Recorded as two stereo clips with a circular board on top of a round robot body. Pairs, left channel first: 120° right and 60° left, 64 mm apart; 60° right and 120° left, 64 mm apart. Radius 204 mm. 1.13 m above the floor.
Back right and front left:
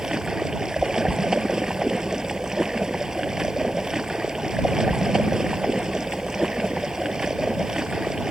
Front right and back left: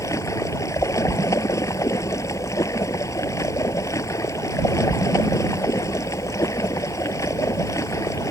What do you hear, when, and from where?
0.0 s running water: 20° right